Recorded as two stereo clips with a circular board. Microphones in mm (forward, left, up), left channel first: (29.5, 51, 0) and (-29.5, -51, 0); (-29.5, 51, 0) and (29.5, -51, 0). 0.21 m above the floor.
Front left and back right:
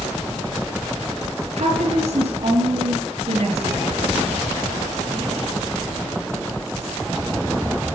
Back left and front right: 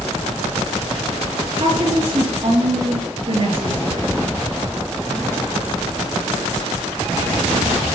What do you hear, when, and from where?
1.6 s a woman speaking: 100° right, 4.5 m